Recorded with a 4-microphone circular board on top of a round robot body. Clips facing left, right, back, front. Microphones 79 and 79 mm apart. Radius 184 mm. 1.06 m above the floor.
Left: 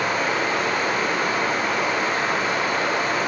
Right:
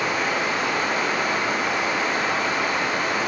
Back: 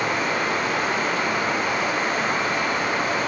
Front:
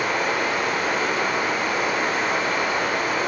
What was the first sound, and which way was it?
Running water, 40° left.